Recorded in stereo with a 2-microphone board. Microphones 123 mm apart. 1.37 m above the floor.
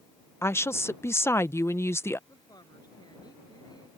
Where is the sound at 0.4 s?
20° left (ahead or behind).